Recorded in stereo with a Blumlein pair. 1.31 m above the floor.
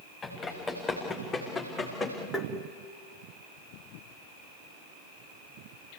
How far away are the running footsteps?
About 7 m.